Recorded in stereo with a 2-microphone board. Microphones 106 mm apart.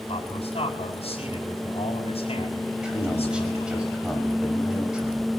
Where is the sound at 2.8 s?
10° right (ahead or behind), 5.5 m.